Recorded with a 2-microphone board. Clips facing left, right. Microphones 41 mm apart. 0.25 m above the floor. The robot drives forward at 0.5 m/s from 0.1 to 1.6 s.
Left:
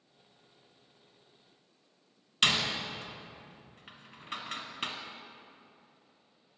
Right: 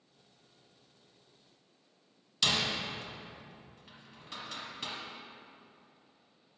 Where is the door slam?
40° left (ahead or behind), 1.0 m.